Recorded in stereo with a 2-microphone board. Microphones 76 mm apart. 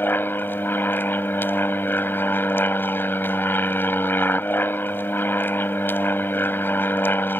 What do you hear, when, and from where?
0.0 s an aircraft: 25° left (ahead or behind)